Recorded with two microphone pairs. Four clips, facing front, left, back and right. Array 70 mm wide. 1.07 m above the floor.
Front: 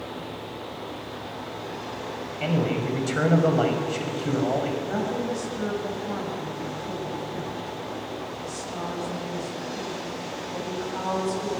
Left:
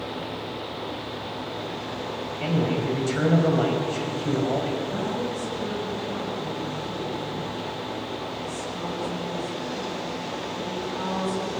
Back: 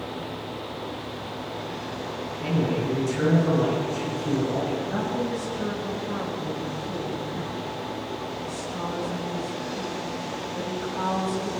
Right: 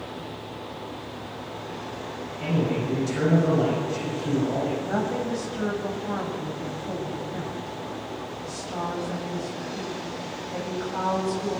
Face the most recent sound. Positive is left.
turn(degrees=-65)